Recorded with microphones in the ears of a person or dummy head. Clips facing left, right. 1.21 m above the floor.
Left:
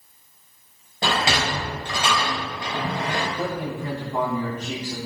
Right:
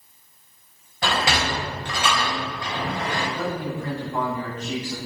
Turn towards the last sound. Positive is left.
turn(degrees=10)  # may be behind; listen again after turning